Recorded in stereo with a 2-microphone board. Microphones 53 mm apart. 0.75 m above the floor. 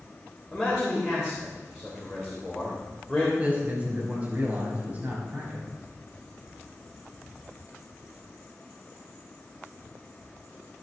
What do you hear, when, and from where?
0.5 s a man speaking: 5° right (ahead or behind), 3 m
3.4 s a man speaking: 30° right (ahead or behind), 4.5 m